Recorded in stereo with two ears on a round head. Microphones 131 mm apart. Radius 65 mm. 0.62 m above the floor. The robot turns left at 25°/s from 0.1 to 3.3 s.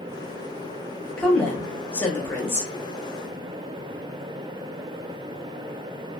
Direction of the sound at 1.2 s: 10° left (ahead or behind).